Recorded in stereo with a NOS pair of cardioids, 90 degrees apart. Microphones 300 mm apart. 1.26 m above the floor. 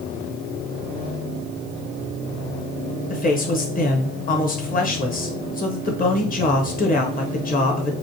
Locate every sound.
3.1 s a man speaking: 30° left, 0.8 m